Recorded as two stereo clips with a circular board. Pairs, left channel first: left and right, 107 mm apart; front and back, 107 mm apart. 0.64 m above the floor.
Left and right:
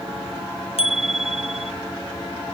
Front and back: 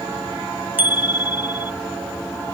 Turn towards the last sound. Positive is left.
turn(degrees=105)